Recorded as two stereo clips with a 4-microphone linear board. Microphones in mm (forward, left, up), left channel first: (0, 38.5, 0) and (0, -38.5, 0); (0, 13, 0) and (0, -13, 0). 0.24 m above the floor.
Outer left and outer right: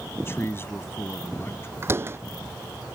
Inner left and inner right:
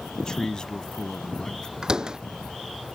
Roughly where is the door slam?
Right.